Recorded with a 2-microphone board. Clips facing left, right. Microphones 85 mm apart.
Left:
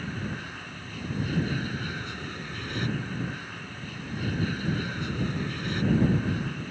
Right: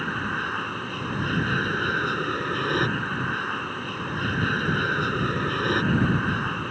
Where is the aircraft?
60° right (ahead or behind).